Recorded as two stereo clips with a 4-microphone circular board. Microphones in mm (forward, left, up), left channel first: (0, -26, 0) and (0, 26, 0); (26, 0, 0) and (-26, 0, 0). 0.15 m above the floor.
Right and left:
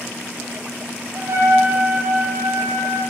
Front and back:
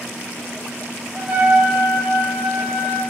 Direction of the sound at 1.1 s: 115° left.